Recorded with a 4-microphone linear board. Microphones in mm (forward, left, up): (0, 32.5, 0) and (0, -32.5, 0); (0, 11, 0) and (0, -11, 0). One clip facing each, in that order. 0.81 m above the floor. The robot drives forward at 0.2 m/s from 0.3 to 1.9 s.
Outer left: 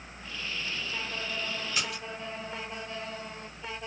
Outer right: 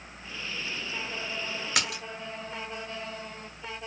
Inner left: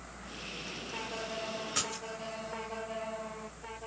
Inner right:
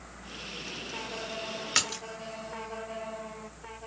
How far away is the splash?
About 0.7 m.